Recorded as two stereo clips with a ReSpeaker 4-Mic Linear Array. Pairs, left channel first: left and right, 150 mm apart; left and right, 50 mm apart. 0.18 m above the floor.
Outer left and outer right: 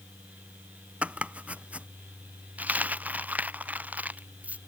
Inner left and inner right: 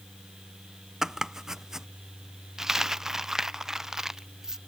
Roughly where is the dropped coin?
Centre.